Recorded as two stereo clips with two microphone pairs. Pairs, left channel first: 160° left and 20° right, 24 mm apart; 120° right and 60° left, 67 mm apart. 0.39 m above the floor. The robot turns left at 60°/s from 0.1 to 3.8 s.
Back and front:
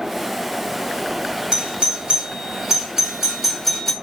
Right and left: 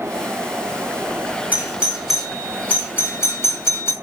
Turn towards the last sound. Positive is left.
turn(degrees=-130)